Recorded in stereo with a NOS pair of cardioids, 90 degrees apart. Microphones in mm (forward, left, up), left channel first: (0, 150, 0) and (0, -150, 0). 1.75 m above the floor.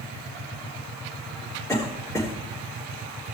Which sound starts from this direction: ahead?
A cough, at 1.7 s.